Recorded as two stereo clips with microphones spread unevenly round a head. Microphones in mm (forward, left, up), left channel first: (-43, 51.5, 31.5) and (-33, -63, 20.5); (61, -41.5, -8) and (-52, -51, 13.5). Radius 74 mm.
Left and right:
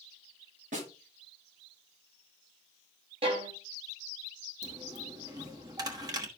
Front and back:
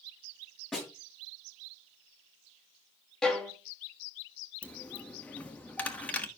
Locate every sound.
0.7 s a snare drum: 80° right, 8 m
3.2 s a violin: 90° right, 1.8 m
4.6 s a dropped coin: 80° right, 1.1 m